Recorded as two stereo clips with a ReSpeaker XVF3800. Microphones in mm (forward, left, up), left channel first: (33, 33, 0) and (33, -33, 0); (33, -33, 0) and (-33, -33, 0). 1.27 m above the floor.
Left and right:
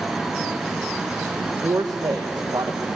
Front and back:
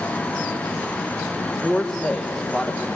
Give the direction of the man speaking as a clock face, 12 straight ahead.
3 o'clock.